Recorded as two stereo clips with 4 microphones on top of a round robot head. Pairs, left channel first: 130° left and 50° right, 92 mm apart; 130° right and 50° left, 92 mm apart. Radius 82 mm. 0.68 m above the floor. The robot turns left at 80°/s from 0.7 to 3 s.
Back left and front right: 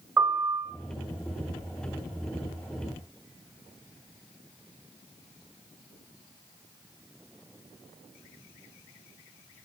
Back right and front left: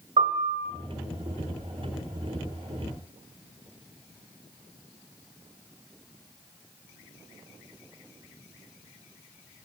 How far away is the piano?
About 0.7 m.